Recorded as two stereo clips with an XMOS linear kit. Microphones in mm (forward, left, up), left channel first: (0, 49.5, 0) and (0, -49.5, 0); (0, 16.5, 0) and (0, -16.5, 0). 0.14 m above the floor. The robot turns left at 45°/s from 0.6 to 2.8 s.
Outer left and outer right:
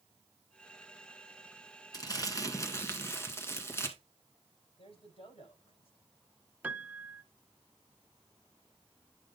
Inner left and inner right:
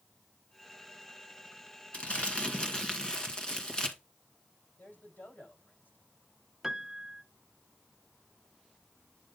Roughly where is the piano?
Centre.